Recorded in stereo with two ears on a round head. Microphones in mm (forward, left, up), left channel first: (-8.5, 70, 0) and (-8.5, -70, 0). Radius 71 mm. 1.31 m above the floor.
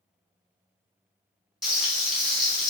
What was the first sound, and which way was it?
Frying, centre (ahead or behind).